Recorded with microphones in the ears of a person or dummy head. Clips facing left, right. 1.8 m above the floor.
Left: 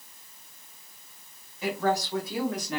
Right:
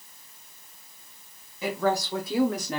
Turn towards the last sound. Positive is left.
turn(degrees=-30)  # may be behind; listen again after turning